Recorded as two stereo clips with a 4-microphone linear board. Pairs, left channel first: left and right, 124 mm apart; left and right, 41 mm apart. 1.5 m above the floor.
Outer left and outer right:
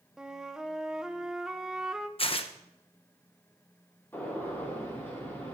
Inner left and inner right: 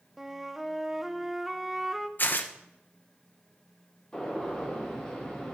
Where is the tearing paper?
50° left (ahead or behind), 0.9 m.